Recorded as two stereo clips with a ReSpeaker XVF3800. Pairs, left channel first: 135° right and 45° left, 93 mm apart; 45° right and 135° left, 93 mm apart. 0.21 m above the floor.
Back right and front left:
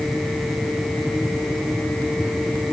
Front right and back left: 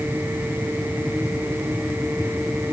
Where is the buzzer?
No buzzer in this recording.